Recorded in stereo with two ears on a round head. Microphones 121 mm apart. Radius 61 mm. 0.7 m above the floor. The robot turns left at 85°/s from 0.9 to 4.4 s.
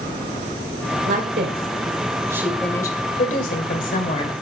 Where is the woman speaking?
50° right, 3 m; by 4.3 s 30° left, 3 m.